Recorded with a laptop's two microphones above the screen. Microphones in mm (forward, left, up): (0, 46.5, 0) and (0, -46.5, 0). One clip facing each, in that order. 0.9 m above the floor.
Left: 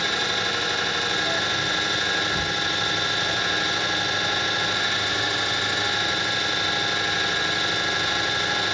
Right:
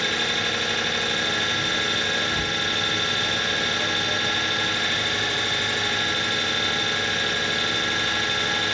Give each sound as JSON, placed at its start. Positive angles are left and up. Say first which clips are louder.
{"t": 0.0, "sound": "an engine running", "louder": "even", "side_deg": 15, "distance_m": 1.2}